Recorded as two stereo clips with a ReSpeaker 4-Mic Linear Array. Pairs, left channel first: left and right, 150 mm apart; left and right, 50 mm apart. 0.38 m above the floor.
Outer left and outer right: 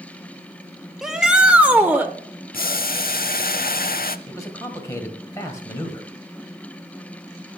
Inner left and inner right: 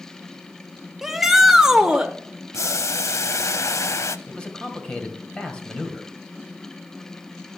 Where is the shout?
Centre (ahead or behind), 0.8 m; by 2.1 s 10° right (ahead or behind), 0.8 m.